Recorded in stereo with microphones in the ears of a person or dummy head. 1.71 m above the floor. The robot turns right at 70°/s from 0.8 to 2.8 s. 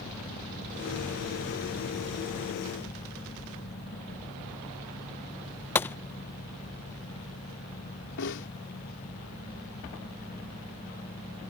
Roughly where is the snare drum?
Left.